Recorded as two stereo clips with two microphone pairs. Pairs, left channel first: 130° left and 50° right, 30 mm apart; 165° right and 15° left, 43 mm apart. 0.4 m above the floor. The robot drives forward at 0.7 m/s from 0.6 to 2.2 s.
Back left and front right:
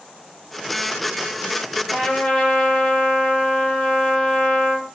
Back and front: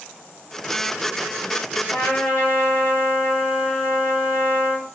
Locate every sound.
1.9 s a trumpet: 165° left, 1.7 m